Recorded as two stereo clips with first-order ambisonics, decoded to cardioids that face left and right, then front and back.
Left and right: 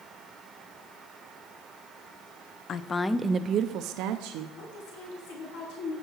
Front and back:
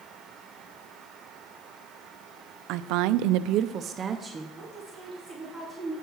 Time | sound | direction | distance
2.7 | a woman speaking | 150° left | 0.7 m
4.6 | a woman speaking | 75° left | 3 m